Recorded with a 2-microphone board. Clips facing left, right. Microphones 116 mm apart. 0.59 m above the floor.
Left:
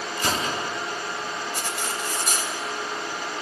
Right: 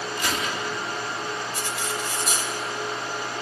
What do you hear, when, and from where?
0.2 s a gunshot: 35° left (ahead or behind), 1.0 m
1.6 s cutlery clinking: 55° left (ahead or behind), 1.9 m